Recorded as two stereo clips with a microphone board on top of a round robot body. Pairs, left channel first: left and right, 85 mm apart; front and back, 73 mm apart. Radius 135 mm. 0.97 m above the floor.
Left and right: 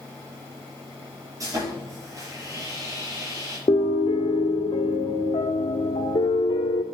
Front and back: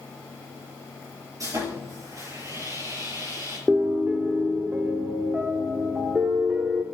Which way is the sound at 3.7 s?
105° left.